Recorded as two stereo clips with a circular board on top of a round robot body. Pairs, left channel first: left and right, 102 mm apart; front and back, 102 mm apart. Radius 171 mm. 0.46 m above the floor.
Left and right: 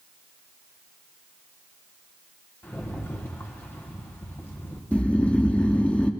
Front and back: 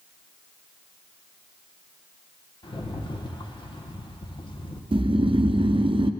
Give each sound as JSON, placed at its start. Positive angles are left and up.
{"t": 2.6, "sound": "a rattle", "azimuth_deg": 25, "distance_m": 1.5}
{"t": 4.9, "sound": "snoring", "azimuth_deg": 165, "distance_m": 0.7}